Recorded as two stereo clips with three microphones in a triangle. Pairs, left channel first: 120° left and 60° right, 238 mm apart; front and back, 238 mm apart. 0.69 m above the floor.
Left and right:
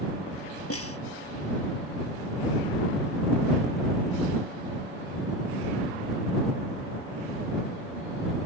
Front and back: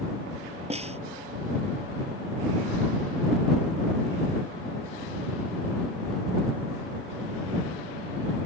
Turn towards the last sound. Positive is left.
turn(degrees=115)